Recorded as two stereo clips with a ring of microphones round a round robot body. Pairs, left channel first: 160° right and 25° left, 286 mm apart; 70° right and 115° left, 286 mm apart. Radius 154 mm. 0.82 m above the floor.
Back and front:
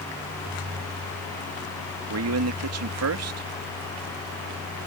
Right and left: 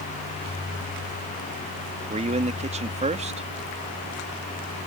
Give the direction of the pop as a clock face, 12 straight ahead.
I don't hear a pop.